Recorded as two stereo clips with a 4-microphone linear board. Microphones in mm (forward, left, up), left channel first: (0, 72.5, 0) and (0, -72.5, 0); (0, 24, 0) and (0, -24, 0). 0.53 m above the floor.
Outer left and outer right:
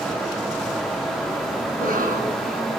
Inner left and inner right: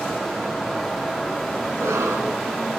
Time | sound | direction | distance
1.7 | a cough | 75° right (ahead or behind) | 6 m